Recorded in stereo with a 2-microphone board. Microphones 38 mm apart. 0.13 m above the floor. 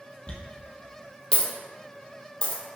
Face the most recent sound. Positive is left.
turn(degrees=25)  # may be behind; listen again after turning